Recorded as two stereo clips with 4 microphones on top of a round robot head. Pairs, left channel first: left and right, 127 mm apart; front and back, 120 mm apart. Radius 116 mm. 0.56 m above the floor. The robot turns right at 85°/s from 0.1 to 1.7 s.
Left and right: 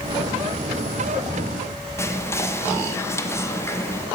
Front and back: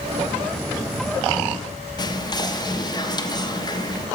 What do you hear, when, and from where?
2.0 s whispering: 30° left, 0.7 m